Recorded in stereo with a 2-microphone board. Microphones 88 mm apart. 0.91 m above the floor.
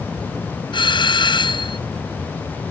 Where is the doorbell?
65° left (ahead or behind).